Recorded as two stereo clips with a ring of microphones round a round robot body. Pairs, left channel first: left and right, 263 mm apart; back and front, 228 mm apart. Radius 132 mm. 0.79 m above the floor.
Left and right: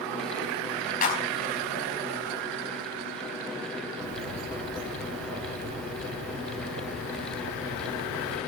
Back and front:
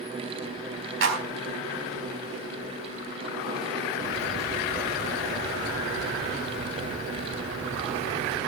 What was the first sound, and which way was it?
A clap, 30° left.